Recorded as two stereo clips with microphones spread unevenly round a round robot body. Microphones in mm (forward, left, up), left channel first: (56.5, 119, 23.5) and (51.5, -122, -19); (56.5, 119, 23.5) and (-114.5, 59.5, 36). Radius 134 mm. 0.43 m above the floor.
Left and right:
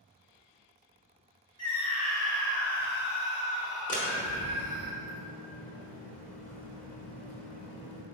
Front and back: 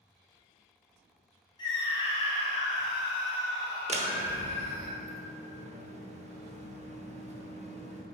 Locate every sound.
1.6 s a scream: 15° left, 0.9 m; by 4.9 s 55° left, 2.5 m
3.9 s a door slam: 150° left, 1.1 m